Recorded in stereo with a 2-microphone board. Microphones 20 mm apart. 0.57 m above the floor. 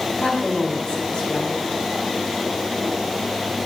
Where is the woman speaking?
55° left (ahead or behind), 3 m.